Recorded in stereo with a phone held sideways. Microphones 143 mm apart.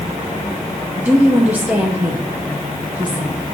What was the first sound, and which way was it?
A woman speaking, 10° right (ahead or behind).